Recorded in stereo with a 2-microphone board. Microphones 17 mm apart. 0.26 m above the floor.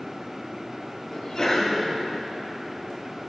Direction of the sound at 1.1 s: 35° left (ahead or behind).